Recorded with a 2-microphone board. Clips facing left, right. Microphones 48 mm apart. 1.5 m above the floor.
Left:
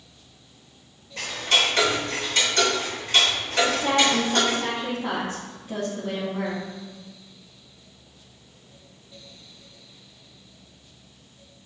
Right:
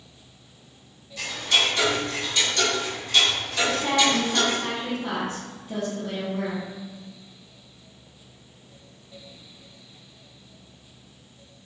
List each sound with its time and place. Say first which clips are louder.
1.2 s ticking: left 1 dB; 45° left (ahead or behind), 3 m
3.6 s a woman speaking: even; 15° left (ahead or behind), 2.0 m